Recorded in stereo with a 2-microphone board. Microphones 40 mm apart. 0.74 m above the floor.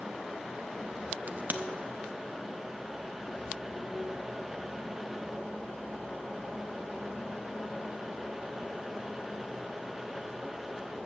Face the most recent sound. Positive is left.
turn(degrees=-45)  # may be behind; listen again after turning